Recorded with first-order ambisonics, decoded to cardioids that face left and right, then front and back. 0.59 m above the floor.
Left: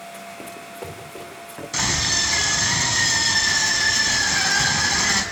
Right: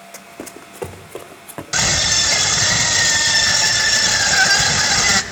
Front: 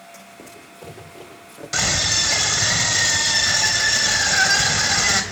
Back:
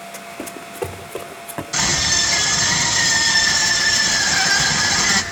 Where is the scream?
70° right, 3 m.